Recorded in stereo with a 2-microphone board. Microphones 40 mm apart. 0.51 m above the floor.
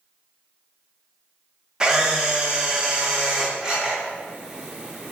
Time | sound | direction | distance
1.8 | a camera shutter | 20° right (ahead or behind) | 0.5 m